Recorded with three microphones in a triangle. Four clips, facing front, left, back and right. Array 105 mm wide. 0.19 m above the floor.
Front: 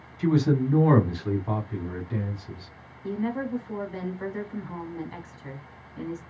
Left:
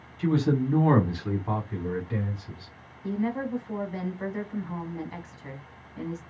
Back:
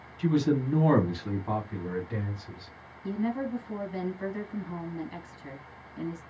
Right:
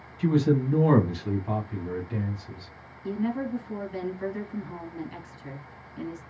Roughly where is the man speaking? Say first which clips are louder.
Right 1 dB, front 3 dB; ahead.